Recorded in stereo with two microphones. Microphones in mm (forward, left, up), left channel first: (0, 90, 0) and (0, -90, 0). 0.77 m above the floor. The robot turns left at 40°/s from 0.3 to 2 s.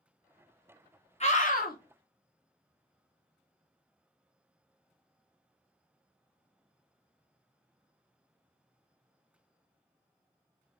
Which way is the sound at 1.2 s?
35° left (ahead or behind).